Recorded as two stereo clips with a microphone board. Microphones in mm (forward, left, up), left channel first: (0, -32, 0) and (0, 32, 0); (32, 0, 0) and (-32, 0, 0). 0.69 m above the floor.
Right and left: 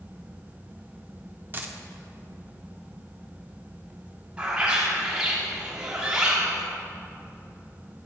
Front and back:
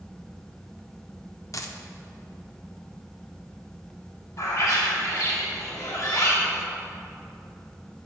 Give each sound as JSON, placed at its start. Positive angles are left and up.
{"t": 1.5, "sound": "a dropped coin", "azimuth_deg": 35, "distance_m": 0.5}
{"t": 4.4, "sound": "a bird", "azimuth_deg": 20, "distance_m": 1.4}